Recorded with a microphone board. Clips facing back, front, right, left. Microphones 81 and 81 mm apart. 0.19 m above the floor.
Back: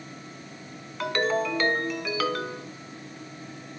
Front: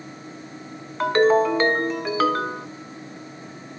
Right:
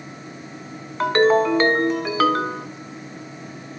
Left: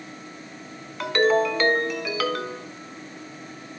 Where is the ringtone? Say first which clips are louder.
Front 9 dB, right 4 dB; 45° right, 0.6 m.